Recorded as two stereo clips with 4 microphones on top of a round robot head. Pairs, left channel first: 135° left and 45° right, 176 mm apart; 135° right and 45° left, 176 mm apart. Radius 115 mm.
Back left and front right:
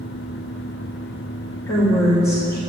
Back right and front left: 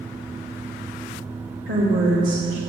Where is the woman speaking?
60° left, 2.5 m.